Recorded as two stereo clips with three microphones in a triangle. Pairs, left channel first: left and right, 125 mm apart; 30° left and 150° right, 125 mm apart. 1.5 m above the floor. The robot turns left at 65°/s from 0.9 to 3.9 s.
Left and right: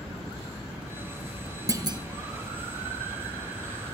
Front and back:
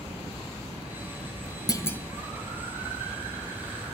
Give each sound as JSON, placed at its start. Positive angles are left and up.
{"t": 1.7, "sound": "a clunk", "azimuth_deg": -25, "distance_m": 1.0}